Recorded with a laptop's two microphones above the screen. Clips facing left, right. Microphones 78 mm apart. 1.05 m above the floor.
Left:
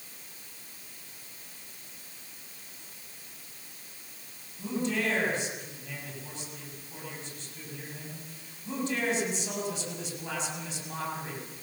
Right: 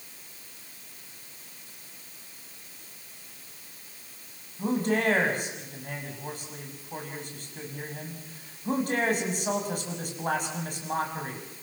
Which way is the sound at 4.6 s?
50° right (ahead or behind).